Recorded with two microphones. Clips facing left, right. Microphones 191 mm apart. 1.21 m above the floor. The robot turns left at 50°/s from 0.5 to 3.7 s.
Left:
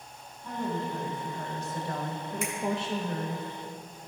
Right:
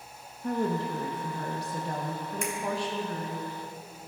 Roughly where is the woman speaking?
Right.